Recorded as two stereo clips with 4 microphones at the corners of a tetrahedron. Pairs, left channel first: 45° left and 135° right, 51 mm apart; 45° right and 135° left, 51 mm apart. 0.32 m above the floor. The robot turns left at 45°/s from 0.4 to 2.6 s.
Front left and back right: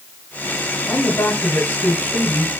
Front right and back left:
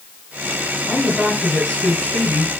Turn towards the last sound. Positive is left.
turn(degrees=-20)